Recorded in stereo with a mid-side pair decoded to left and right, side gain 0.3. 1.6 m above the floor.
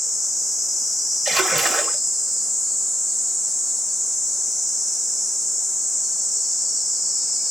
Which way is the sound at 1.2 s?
60° right.